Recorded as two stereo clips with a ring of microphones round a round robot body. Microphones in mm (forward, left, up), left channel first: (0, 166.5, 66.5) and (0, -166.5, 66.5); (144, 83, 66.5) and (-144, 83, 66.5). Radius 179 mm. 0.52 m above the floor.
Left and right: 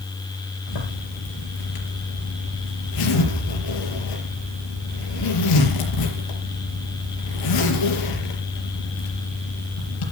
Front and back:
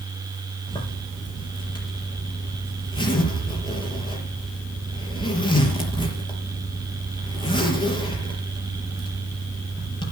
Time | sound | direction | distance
0.7 | a zipper | 75° left | 5 m